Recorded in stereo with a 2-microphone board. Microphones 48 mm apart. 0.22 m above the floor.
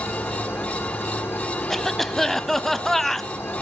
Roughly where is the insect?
Left.